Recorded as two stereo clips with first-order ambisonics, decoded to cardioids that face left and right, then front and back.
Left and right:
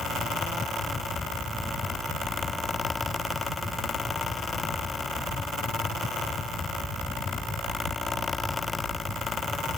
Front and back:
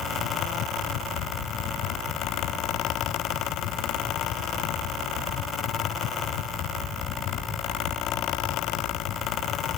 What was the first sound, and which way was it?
Only background noise.